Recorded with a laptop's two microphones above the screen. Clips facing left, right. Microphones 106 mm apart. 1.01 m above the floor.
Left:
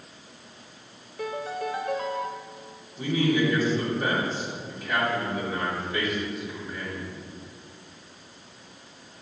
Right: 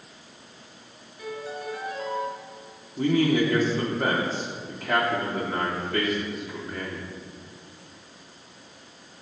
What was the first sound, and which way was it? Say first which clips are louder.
A piano: left 4 dB; 80° left.